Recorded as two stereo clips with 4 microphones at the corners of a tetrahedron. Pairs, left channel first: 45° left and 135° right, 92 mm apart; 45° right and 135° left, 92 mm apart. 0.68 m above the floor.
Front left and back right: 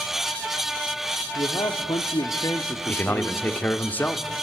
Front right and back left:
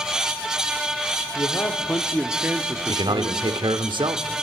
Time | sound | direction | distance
1.4 | a man speaking | 5° left | 2 m
2.9 | a man speaking | 115° left | 1.4 m